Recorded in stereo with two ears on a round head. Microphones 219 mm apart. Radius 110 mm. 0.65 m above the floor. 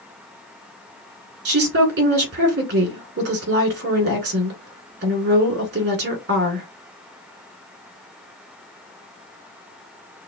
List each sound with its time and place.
1.4 s a woman speaking: 45° right (ahead or behind), 2 m